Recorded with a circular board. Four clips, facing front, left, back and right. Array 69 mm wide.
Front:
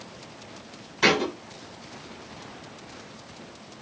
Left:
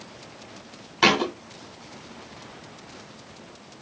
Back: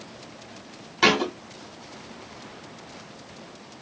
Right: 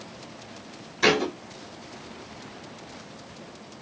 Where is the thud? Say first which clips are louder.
Left 1 dB, back 1 dB; 115° left, 1.7 m.